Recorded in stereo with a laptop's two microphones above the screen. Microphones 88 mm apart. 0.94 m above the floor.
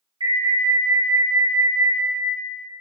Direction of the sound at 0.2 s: 65° right (ahead or behind).